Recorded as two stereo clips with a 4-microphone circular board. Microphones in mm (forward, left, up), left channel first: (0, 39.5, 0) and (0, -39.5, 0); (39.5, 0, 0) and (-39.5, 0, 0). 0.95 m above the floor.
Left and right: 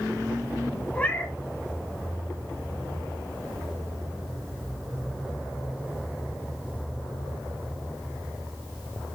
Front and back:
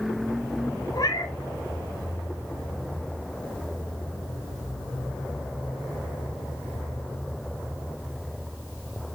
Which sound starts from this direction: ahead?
A cat meowing, at 0.9 s.